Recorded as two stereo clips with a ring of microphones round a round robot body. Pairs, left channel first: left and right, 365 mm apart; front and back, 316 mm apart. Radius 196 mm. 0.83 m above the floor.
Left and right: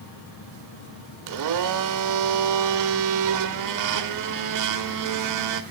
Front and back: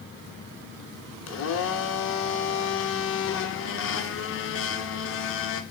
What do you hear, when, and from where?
1.3 s a blender: 55° right, 1.1 m